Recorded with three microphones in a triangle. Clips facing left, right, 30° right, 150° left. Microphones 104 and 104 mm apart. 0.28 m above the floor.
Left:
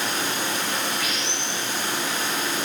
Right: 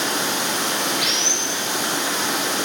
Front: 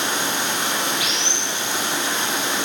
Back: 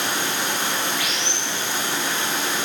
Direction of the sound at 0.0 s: 100° right.